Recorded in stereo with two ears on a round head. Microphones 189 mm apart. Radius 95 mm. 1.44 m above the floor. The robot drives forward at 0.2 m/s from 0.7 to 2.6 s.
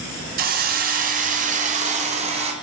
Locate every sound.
0.4 s a hiss: 45° right (ahead or behind), 0.7 m; by 2.5 s 30° right (ahead or behind), 1.0 m